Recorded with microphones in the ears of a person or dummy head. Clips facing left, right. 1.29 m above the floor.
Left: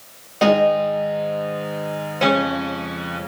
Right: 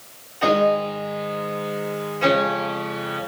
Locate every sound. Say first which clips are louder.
0.4 s a piano: left 3 dB; 80° left, 8 m